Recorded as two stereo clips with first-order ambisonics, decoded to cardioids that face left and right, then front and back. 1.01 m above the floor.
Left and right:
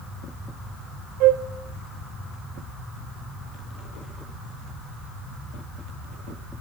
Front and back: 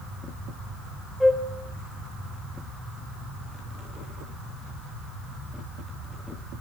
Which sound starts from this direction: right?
A flute, at 1.2 s.